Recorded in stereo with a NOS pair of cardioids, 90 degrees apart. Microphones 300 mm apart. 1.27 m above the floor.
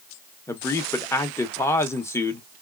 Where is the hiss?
I don't hear a hiss.